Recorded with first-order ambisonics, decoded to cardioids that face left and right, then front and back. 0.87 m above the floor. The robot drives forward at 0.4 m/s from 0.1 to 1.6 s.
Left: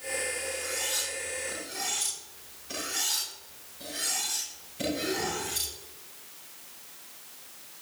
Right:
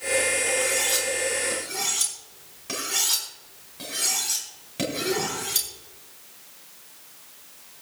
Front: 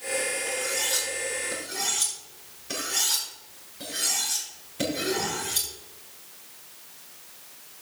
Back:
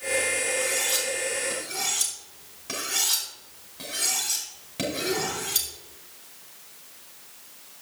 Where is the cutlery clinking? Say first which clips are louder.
Right 8 dB, back 2 dB; 125° right, 5 m; by 5.7 s 130° right, 5.5 m.